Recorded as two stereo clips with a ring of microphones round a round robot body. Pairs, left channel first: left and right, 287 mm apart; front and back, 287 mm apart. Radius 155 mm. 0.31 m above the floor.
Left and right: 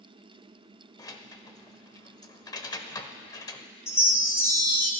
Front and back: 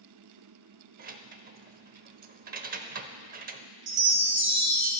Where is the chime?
165° left, 1.8 m.